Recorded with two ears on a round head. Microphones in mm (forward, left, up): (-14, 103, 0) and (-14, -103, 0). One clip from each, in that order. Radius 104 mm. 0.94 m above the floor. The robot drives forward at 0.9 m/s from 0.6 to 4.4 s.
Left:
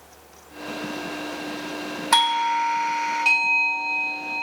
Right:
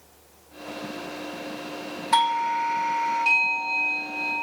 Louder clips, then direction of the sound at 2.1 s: Left 2 dB; 40° left (ahead or behind).